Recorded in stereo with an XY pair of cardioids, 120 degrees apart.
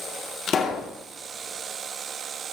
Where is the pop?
45° left, 1.2 m.